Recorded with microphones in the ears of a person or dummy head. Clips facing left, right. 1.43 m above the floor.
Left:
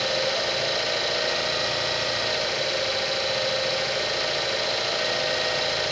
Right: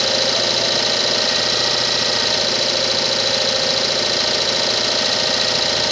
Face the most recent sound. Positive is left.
turn(degrees=-65)  # may be behind; listen again after turning